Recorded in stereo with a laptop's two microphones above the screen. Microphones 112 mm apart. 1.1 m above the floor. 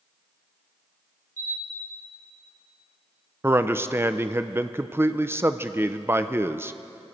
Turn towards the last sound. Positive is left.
turn(degrees=-20)  # may be behind; listen again after turning